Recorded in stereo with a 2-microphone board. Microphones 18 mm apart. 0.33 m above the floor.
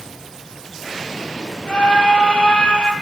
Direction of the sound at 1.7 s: 65° left (ahead or behind).